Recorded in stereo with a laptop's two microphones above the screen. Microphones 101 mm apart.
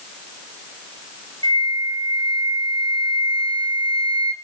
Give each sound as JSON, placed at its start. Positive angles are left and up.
{"t": 1.4, "sound": "a flute", "side_deg": -60, "distance_m": 2.5}